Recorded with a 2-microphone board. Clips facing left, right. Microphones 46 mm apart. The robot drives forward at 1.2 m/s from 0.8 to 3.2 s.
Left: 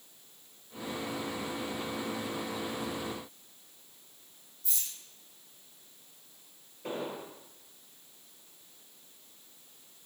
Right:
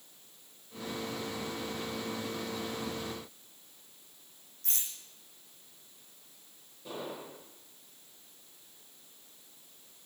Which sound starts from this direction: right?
A rattle, at 4.6 s.